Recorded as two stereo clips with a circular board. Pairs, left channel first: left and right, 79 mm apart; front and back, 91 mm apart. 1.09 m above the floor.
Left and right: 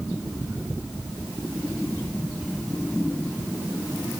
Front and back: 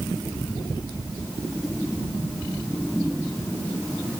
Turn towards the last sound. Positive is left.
No sound to turn to.